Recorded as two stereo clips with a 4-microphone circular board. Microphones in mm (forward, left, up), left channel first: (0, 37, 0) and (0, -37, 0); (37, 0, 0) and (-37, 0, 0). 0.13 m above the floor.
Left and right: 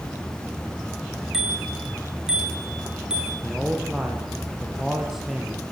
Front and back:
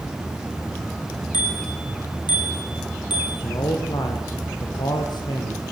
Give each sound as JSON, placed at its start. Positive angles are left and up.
{"t": 1.3, "sound": "a bicycle bell", "azimuth_deg": -10, "distance_m": 7.5}
{"t": 3.4, "sound": "a man speaking", "azimuth_deg": -10, "distance_m": 4.5}